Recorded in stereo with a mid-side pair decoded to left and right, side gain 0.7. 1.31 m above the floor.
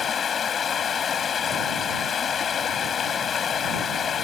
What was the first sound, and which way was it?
Running water, 35° left.